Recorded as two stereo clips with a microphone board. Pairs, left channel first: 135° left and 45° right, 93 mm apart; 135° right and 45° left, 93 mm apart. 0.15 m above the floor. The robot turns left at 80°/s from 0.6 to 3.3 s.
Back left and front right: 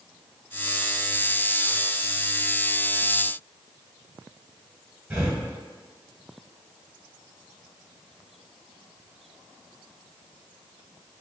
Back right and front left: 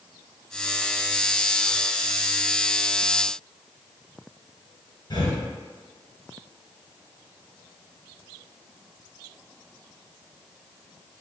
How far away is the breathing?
About 1.3 m.